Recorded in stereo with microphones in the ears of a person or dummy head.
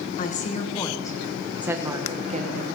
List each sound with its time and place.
0.2 s a woman speaking: 50° left (ahead or behind), 1.3 m; by 2.7 s 35° right (ahead or behind), 1.5 m